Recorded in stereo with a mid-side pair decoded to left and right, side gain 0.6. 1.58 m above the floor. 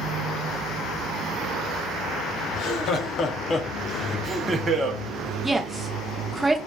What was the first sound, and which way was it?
Laughter, 60° left.